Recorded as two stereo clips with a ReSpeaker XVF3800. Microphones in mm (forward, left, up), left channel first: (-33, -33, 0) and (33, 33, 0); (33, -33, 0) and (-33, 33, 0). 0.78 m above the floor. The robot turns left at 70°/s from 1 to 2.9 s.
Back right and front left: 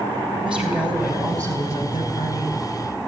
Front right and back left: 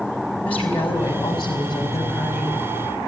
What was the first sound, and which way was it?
A woman speaking, 35° right.